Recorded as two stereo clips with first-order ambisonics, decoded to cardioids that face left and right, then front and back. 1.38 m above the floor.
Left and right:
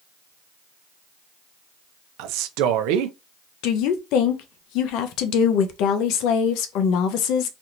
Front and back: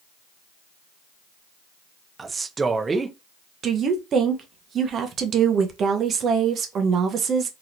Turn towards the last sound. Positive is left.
turn(degrees=120)